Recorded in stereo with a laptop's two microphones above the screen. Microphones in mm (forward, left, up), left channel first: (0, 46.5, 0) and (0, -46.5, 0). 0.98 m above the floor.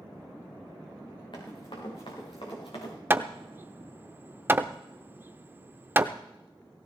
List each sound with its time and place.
1.3 s running footsteps: 55° left (ahead or behind), 5 m; by 2.9 s 65° left (ahead or behind), 5.5 m
3.1 s hammering: 25° right (ahead or behind), 0.6 m